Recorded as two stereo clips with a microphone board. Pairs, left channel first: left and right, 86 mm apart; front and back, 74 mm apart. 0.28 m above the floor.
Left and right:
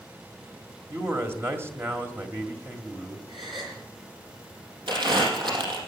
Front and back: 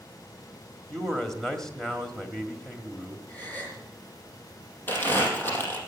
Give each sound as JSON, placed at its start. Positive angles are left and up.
{"t": 0.9, "sound": "a man speaking", "azimuth_deg": -80, "distance_m": 1.6}
{"t": 3.3, "sound": "a gasp", "azimuth_deg": -75, "distance_m": 7.0}
{"t": 4.9, "sound": "crumpling", "azimuth_deg": -65, "distance_m": 4.5}